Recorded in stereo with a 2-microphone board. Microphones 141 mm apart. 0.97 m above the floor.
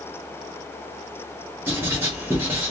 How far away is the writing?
About 1.8 m.